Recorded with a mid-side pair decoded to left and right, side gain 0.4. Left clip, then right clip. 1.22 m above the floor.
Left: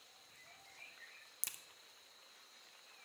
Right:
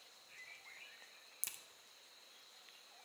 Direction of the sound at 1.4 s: 20° left.